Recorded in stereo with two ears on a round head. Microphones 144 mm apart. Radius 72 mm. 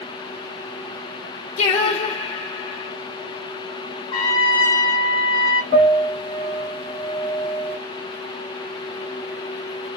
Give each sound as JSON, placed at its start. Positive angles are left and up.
{"t": 1.6, "sound": "singing", "side_deg": 40, "distance_m": 0.9}
{"t": 4.1, "sound": "a trumpet", "side_deg": 30, "distance_m": 1.4}
{"t": 5.7, "sound": "a piano", "side_deg": -55, "distance_m": 2.5}